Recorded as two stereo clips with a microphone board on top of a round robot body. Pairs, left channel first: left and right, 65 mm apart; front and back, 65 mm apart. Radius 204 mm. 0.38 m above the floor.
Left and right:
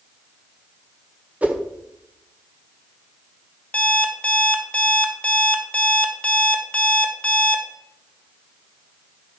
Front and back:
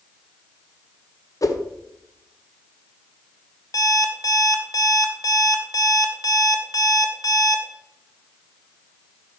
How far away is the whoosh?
About 1.4 m.